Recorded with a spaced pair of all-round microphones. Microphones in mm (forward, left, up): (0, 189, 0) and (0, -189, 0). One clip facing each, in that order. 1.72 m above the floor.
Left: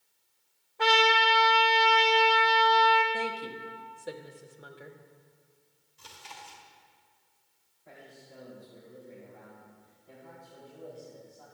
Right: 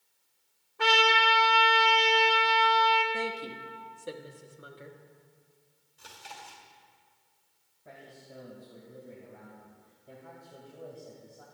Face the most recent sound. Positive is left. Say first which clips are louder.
# right 1 dB
turn(degrees=-80)